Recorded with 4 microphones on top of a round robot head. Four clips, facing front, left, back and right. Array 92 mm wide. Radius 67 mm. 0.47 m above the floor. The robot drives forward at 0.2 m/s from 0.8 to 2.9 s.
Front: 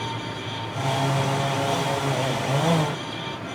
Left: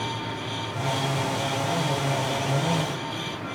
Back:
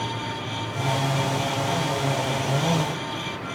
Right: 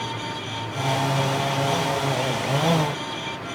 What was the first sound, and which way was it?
Only background noise.